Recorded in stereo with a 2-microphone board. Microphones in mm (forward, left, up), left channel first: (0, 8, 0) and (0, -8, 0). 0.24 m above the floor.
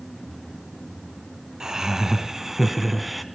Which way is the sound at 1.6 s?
45° right (ahead or behind).